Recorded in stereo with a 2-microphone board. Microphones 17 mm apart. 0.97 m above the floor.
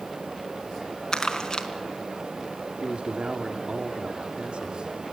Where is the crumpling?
30° left (ahead or behind), 4 m.